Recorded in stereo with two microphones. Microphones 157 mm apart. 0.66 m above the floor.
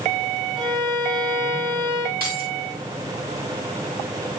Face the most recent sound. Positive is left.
turn(degrees=-75)  # may be behind; listen again after turning